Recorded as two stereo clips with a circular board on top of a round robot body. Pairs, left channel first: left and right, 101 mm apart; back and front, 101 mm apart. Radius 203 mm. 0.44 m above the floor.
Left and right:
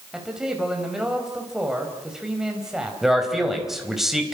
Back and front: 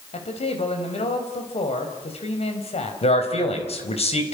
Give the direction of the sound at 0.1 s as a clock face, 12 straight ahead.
6 o'clock.